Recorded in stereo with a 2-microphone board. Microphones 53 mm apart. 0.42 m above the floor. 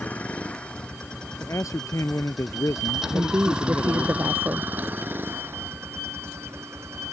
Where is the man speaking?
80° left.